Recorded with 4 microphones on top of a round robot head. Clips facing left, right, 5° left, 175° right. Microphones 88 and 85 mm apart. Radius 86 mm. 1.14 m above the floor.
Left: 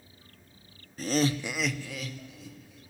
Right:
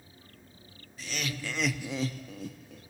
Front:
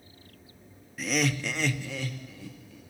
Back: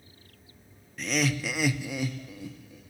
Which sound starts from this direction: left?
Laughter, at 1.0 s.